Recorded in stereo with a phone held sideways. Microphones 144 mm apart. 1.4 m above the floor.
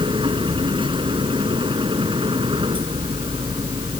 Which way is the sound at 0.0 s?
35° right (ahead or behind).